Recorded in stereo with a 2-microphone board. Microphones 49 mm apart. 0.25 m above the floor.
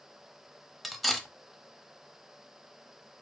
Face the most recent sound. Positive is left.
turn(degrees=0)  # may be behind; listen again after turning